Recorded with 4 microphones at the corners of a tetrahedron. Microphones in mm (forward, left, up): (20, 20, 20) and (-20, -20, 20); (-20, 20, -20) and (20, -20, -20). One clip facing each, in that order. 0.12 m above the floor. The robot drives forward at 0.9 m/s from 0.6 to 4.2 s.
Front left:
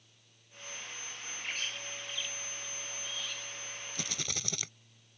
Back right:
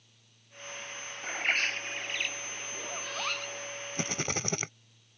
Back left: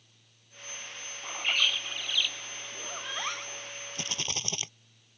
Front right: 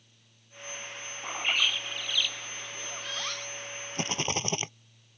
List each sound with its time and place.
1.2 s a bird: 115° right; by 3.7 s 155° right
4.0 s a rattle: 90° right; by 4.7 s 95° right